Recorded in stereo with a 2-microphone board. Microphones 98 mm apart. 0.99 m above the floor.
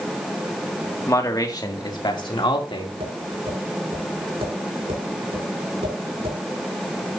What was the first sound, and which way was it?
A man speaking, 35° left (ahead or behind).